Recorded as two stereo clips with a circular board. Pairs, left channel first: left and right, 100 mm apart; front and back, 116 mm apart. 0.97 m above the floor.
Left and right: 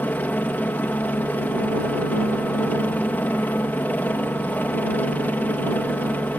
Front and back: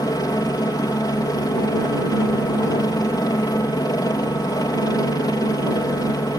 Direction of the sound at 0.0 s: 30° left.